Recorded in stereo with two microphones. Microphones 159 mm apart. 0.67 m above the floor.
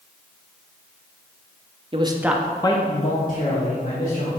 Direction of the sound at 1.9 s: 35° right (ahead or behind).